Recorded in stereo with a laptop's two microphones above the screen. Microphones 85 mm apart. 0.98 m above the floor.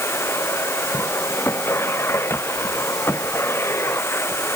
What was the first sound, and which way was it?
A machine running, 30° left (ahead or behind).